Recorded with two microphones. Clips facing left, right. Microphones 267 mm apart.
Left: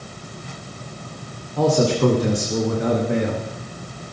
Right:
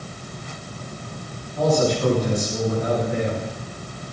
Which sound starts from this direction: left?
A man speaking, at 1.6 s.